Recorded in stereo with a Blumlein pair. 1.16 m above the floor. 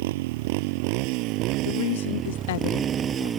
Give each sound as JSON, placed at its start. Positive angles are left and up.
{"t": 0.0, "sound": "a motorcycle", "azimuth_deg": -55}
{"t": 1.6, "sound": "a woman speaking", "azimuth_deg": 55}